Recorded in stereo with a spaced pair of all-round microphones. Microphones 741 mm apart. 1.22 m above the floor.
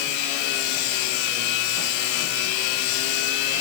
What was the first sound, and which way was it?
Only background noise.